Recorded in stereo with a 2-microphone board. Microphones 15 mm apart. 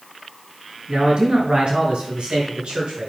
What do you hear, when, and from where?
0.9 s a man speaking: 60° right (ahead or behind), 5 m; by 3.1 s 70° right (ahead or behind), 6 m